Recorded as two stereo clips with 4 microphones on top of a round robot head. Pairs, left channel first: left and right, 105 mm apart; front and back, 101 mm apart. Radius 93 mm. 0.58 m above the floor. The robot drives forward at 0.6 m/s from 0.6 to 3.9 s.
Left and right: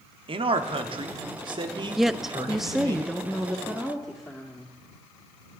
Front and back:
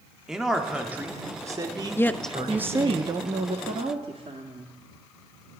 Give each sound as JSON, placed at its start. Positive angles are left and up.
{"t": 0.3, "sound": "a man speaking", "azimuth_deg": -95, "distance_m": 1.2}
{"t": 2.0, "sound": "a woman speaking", "azimuth_deg": -5, "distance_m": 0.6}